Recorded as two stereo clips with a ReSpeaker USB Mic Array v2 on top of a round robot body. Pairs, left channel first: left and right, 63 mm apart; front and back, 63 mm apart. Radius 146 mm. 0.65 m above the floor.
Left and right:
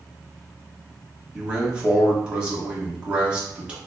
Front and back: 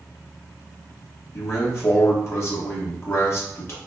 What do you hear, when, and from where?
1.3 s a man speaking: 20° right, 1.4 m